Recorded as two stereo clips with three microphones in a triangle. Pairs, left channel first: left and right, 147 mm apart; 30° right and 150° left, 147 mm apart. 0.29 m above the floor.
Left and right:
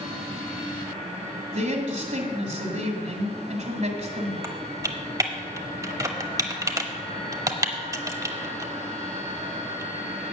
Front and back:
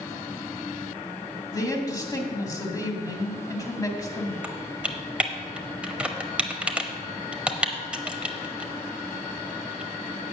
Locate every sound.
1.5 s a man speaking: 90° right, 1.9 m
4.4 s typing on a keyboard: 135° right, 0.9 m